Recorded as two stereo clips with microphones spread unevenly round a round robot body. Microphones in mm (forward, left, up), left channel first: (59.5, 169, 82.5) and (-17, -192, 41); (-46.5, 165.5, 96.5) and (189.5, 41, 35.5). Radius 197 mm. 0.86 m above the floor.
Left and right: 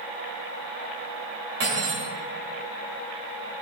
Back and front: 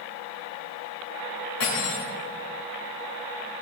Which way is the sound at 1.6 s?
160° right.